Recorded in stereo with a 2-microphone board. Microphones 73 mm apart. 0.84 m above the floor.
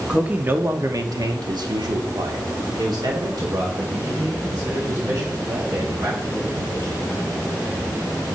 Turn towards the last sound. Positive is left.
turn(degrees=-50)  # may be behind; listen again after turning